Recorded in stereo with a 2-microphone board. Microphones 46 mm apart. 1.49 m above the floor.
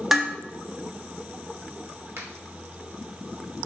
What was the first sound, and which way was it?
Dishes clattering, 5° right (ahead or behind).